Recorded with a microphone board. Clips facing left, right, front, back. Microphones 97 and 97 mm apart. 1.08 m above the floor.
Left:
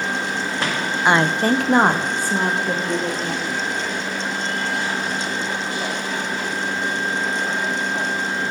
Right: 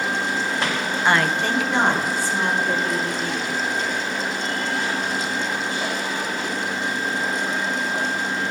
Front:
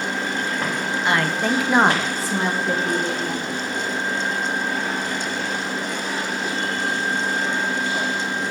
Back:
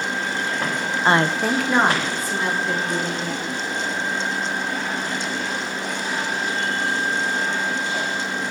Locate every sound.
1.1 s a woman speaking: 155° left, 0.6 m; by 3.5 s 45° left, 2 m